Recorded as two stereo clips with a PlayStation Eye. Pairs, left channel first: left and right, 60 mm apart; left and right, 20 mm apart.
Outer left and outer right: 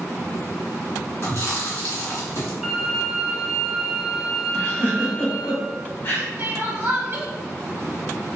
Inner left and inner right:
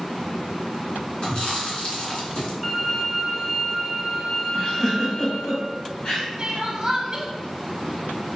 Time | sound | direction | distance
1.2 | chewing | 50° left (ahead or behind) | 2.0 m
2.6 | a violin | 5° right (ahead or behind) | 1.2 m
4.5 | a giggle | 35° left (ahead or behind) | 1.2 m
6.4 | crying | 35° right (ahead or behind) | 0.7 m